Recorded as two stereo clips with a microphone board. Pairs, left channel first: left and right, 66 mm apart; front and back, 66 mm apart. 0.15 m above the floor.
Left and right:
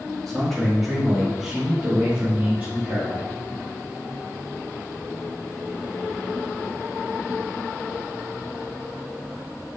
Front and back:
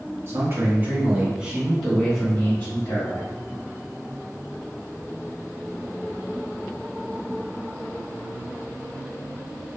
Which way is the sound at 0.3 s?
170° left.